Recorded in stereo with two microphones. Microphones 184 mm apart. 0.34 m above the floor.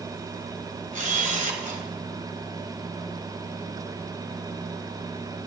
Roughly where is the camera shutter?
Right.